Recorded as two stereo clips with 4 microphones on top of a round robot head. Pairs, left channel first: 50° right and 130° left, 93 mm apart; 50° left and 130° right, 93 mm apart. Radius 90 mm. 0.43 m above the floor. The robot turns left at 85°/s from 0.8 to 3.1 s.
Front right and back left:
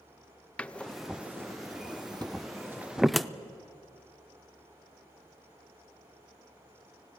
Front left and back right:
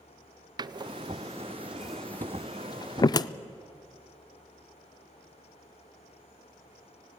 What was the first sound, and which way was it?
A door slam, 125° right.